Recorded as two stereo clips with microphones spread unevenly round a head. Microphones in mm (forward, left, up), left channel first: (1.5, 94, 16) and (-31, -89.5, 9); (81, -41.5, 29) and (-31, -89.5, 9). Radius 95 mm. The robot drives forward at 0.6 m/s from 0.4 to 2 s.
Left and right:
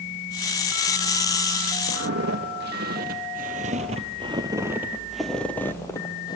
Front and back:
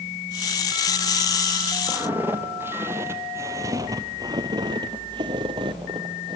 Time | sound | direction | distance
1.9 | footsteps | 75° right | 1.9 m